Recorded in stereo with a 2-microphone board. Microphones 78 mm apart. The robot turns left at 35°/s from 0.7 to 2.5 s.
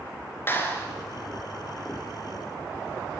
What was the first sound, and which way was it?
A clap, 30° left (ahead or behind).